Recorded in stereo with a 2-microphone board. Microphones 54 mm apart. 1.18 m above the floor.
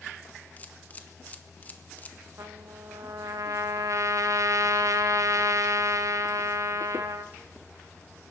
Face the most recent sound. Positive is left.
turn(degrees=-65)  # may be behind; listen again after turning